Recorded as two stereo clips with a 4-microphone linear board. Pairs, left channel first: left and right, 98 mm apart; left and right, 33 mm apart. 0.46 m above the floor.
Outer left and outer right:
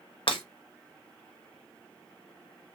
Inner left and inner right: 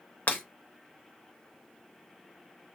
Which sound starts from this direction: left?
Breaking glass, at 0.3 s.